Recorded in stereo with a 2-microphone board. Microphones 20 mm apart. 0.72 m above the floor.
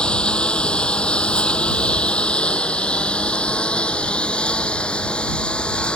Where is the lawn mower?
65° left (ahead or behind); by 6.0 s 75° left (ahead or behind).